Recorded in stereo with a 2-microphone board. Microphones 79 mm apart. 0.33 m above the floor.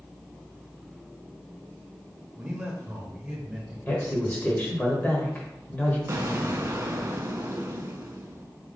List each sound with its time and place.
2.4 s a man speaking: 15° right (ahead or behind), 0.9 m; by 3.8 s 10° right (ahead or behind), 1.1 m
3.9 s a woman speaking: 25° left (ahead or behind), 1.3 m
6.1 s an explosion: 40° right (ahead or behind), 0.5 m